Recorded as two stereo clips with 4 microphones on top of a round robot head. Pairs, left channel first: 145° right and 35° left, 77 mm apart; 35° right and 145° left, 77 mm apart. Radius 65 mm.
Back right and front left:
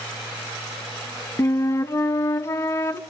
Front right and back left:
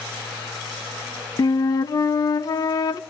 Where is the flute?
85° right, 0.6 m.